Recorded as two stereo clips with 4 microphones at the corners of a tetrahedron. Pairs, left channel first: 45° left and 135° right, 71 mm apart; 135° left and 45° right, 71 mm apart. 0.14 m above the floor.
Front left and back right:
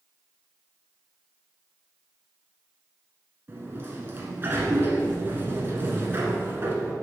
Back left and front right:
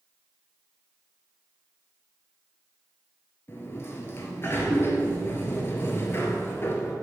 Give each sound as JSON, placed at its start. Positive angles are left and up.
{"t": 3.5, "sound": "a sliding door", "azimuth_deg": 175, "distance_m": 0.9}